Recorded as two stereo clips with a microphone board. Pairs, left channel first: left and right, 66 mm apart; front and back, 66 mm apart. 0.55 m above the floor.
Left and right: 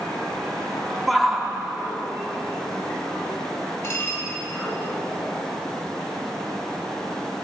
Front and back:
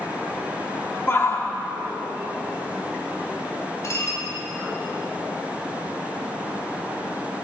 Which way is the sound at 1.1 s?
Straight ahead.